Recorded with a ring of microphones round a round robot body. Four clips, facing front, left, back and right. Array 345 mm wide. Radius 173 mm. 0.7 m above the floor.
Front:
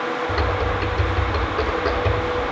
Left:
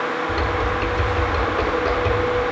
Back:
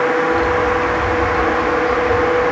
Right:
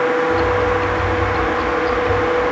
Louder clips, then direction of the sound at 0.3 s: Right 6 dB, back 7 dB; 40° left.